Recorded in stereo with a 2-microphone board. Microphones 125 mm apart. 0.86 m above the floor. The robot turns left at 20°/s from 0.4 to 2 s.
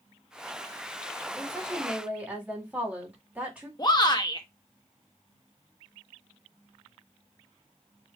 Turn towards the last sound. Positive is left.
turn(degrees=35)  # may be behind; listen again after turning